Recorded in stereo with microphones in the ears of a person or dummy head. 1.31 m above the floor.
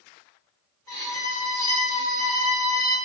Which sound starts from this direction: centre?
A violin, at 0.9 s.